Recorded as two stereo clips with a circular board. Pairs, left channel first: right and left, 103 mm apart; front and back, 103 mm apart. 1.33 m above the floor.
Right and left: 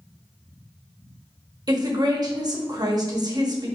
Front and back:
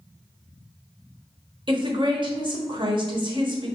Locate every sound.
1.7 s a woman speaking: 140° left, 1.0 m